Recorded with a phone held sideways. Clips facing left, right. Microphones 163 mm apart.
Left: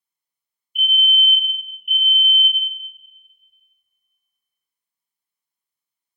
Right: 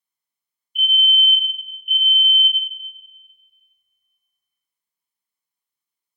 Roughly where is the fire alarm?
Centre.